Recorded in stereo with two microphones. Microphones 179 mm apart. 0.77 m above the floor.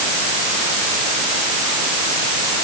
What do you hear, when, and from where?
Only background noise.